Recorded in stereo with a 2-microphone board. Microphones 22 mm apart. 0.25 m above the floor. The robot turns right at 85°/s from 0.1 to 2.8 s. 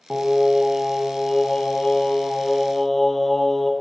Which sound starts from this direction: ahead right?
Singing, at 0.1 s.